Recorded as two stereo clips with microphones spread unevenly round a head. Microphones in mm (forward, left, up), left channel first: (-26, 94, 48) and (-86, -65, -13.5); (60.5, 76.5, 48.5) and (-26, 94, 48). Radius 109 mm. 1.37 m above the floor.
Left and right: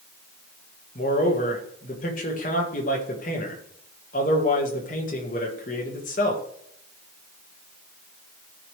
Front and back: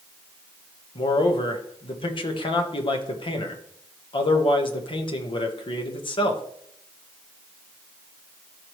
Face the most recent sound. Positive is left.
turn(degrees=15)